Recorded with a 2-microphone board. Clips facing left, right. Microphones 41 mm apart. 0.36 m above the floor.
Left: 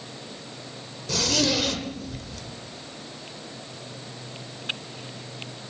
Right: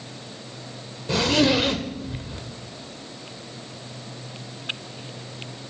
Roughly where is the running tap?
I don't hear a running tap.